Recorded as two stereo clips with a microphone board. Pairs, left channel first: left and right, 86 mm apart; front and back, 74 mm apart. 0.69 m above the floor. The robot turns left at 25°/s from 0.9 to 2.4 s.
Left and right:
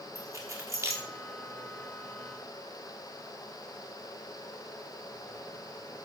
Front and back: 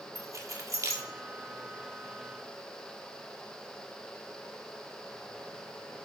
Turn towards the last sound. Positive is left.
turn(degrees=180)